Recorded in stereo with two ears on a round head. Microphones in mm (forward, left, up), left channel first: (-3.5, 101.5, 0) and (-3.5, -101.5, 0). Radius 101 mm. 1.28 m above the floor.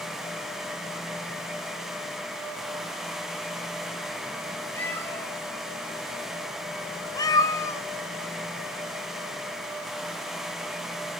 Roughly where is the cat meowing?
Centre.